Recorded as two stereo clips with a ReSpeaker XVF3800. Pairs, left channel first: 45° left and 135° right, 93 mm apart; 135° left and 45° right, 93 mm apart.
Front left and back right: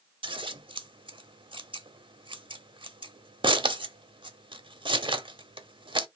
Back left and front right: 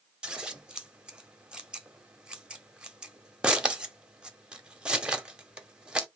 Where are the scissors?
125° right, 0.7 m.